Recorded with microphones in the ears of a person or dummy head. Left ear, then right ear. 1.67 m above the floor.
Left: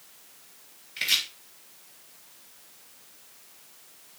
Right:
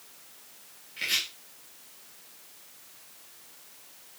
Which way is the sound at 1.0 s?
30° left (ahead or behind).